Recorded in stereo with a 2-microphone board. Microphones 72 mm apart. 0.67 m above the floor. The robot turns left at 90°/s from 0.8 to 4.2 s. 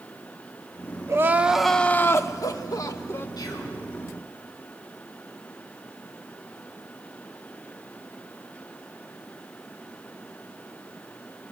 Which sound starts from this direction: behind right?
Crying, at 1.1 s.